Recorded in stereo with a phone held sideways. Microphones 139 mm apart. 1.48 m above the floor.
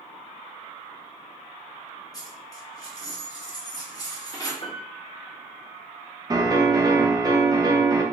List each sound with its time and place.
2.1 s a dropped coin: 25° left (ahead or behind), 1.0 m
4.6 s a piano: 40° left (ahead or behind), 0.6 m
6.3 s a piano: 30° right (ahead or behind), 0.6 m